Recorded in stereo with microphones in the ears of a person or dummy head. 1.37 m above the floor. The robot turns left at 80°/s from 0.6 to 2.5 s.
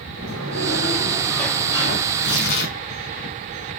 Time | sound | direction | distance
0.2 | a sliding door | 115° right | 6.5 m
2.1 | tearing paper | 105° left | 5.5 m